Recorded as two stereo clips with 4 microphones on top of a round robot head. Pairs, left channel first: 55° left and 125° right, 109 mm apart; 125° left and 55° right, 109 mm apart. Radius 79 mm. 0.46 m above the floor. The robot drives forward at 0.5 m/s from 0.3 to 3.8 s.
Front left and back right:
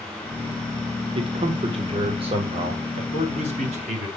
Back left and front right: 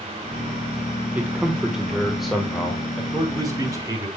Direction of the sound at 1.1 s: 125° right.